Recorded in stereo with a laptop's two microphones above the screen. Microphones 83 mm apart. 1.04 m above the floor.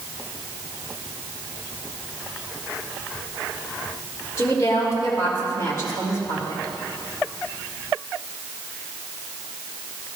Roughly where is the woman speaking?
Left.